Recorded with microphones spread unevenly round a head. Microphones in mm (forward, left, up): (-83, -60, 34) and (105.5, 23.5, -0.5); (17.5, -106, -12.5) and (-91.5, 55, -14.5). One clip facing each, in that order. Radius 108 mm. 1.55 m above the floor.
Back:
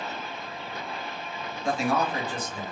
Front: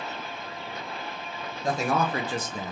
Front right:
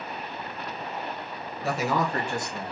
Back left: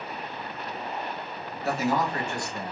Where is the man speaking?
35° right, 1.0 m; by 2.7 s 45° left, 0.6 m.